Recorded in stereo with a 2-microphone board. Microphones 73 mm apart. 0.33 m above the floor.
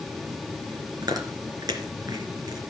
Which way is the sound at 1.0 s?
70° right (ahead or behind).